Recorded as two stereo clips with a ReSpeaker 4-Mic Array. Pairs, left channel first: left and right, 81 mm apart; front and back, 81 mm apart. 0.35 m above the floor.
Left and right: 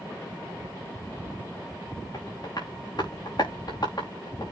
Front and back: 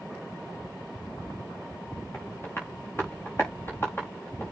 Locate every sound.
2.1 s tapping: 60° left, 5 m